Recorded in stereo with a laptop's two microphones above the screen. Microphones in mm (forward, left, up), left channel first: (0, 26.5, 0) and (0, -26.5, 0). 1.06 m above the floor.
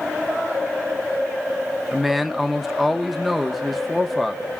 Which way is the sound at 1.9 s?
Centre (ahead or behind).